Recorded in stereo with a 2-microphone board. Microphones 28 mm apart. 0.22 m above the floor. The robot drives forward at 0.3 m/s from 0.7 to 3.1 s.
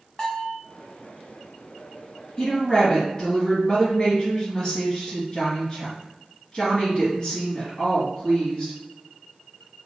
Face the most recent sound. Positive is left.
turn(degrees=30)  # may be behind; listen again after turning